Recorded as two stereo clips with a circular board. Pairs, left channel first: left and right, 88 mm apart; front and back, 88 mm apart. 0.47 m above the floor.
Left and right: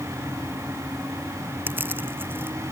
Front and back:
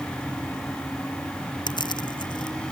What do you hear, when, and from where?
1.7 s crushing: 25° right